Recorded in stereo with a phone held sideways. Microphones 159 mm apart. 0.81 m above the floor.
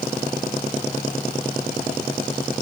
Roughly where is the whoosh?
I don't hear a whoosh.